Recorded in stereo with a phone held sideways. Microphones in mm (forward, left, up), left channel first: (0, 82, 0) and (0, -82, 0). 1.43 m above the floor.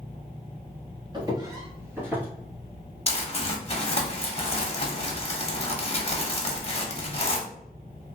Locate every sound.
1.1 s footsteps: 25° right (ahead or behind), 1.6 m; by 2.3 s 10° right (ahead or behind), 1.6 m
3.1 s crumpling: 40° left (ahead or behind), 0.8 m